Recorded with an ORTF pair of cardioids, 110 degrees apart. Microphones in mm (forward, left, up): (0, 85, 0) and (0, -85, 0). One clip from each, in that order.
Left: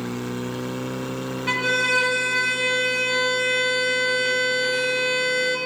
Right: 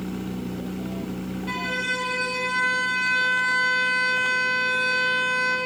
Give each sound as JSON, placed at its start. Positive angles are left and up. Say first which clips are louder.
{"t": 1.5, "sound": "a violin", "louder": "left 6 dB", "azimuth_deg": 60, "distance_m": 1.4}